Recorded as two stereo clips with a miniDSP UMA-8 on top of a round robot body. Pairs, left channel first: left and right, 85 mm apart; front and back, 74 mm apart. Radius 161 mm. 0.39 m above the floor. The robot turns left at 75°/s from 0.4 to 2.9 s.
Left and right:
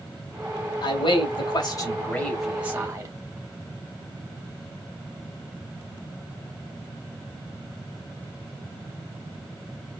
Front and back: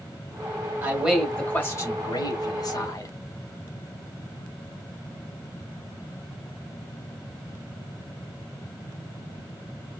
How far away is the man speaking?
About 1.8 m.